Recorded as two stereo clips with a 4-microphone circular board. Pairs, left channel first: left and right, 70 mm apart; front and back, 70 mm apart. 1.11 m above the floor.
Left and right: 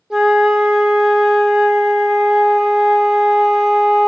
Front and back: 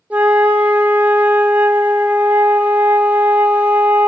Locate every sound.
0.1 s a flute: 155° right, 0.8 m